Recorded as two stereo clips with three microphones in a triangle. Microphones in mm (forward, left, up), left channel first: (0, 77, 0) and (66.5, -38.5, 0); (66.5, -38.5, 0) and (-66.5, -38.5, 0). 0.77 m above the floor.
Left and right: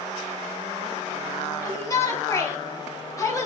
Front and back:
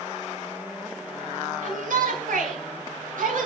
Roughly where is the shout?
Behind.